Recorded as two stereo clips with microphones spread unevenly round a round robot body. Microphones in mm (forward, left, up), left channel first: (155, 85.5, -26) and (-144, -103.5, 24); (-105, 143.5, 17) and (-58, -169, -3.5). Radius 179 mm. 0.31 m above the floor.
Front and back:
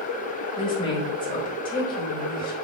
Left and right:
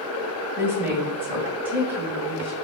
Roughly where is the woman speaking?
Ahead.